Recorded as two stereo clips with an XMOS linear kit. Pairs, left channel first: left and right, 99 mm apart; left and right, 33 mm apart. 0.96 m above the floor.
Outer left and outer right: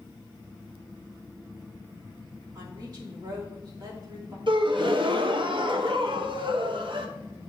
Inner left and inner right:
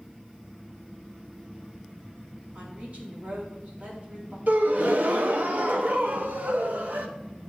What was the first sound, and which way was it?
A woman speaking, 45° right (ahead or behind).